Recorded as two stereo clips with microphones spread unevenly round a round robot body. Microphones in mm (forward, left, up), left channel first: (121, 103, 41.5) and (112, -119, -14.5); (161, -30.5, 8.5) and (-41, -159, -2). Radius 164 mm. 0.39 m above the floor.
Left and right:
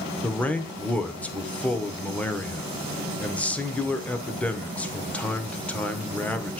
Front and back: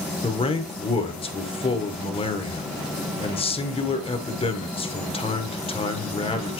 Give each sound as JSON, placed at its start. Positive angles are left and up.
{"t": 0.2, "sound": "a man speaking", "azimuth_deg": -15, "distance_m": 1.0}